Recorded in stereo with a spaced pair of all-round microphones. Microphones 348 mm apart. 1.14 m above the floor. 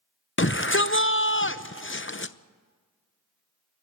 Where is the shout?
35° left (ahead or behind), 0.7 m.